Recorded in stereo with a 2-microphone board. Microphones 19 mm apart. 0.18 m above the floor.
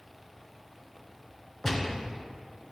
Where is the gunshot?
25° left (ahead or behind), 1.6 m.